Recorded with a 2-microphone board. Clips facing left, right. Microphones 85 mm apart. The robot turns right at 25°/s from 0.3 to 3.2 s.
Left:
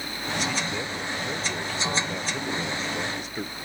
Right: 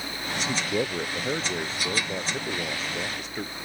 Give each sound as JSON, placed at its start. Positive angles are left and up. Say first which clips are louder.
{"t": 0.5, "sound": "a man speaking", "louder": "right 3 dB", "azimuth_deg": -65}